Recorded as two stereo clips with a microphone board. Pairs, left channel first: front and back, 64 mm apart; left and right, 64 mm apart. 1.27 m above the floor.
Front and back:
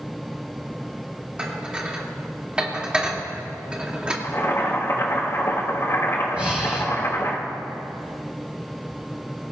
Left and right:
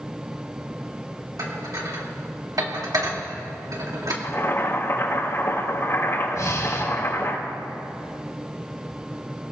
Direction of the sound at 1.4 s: 105° right.